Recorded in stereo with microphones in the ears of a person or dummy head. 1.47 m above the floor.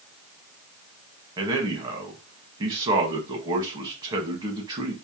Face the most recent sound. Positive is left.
turn(degrees=-25)  # may be behind; listen again after turning